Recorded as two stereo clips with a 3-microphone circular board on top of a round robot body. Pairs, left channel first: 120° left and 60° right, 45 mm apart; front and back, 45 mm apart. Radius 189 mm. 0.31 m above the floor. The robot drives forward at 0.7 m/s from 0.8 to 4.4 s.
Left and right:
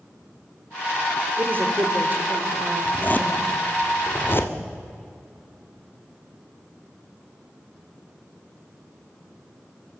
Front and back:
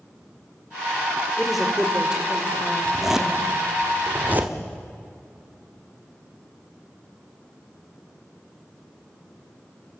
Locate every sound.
1.4 s a woman speaking: 90° right, 2 m; by 3.5 s 130° right, 2.5 m
2.9 s a zipper: 95° left, 1.7 m; by 4.5 s 140° left, 2 m